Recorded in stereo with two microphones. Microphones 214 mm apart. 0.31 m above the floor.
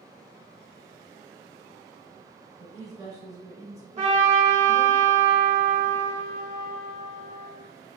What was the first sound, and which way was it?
A woman speaking, 15° right (ahead or behind).